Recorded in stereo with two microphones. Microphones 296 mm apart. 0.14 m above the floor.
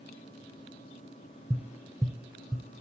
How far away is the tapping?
About 0.8 m.